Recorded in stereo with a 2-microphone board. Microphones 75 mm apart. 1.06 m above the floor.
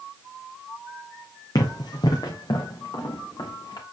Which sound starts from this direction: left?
Running footsteps, at 1.6 s.